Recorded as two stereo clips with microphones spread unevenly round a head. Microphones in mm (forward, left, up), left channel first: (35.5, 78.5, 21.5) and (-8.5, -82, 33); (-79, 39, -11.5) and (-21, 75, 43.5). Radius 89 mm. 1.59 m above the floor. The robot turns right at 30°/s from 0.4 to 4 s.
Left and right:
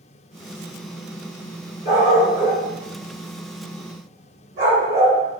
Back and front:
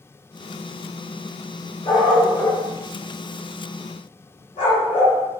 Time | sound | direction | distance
1.9 | a dog barking | 140° left | 1.5 m